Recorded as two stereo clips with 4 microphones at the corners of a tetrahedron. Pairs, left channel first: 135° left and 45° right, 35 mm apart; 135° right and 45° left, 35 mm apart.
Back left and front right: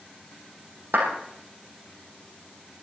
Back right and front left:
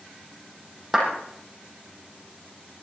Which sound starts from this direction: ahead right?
A clap, at 0.9 s.